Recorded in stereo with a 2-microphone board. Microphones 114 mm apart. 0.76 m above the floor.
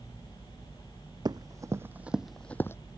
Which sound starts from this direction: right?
Running footsteps, at 1.2 s.